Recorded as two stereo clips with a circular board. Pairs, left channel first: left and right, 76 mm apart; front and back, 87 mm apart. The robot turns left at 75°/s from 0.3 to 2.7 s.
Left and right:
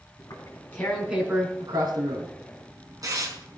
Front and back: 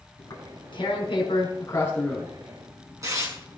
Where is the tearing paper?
50° left, 5.5 m; by 3.6 s 130° right, 5.5 m.